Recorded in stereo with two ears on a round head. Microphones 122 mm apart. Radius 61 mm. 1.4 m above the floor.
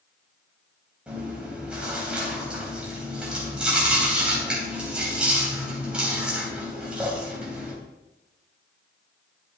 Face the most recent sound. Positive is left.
turn(degrees=-10)  # may be behind; listen again after turning